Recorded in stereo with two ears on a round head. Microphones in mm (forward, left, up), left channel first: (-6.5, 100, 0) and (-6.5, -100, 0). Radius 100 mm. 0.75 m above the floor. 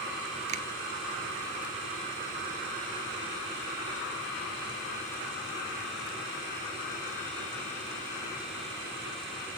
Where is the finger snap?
35° right (ahead or behind), 1.2 m.